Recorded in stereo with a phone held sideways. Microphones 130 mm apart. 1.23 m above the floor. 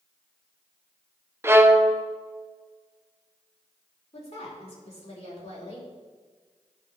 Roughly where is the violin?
Centre.